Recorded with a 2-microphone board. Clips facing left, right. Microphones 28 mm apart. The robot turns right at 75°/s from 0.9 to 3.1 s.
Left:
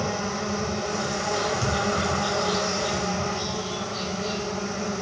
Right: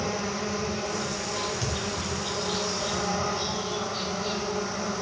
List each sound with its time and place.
0.0 s an insect: 25° left, 1.8 m; by 5.0 s 170° right, 1.8 m
1.6 s a thud: 10° right (ahead or behind), 3.5 m; by 1.8 s 25° right (ahead or behind), 3.5 m